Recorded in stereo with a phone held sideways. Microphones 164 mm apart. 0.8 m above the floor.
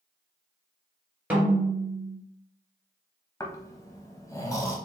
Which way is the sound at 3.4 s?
20° left (ahead or behind).